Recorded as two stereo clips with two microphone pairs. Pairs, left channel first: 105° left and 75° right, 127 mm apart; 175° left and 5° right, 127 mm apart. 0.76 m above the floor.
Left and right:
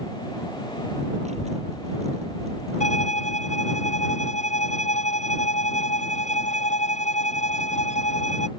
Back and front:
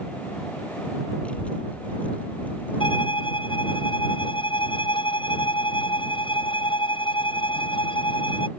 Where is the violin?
125° left.